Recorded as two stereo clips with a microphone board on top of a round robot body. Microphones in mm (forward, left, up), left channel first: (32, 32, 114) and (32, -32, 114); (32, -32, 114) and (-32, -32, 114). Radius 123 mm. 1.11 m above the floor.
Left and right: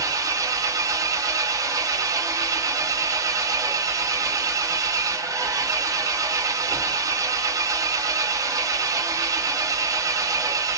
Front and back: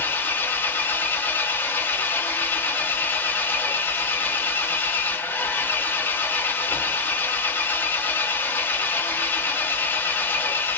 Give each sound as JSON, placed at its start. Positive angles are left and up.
{"t": 0.0, "sound": "an engine running", "azimuth_deg": -60, "distance_m": 0.9}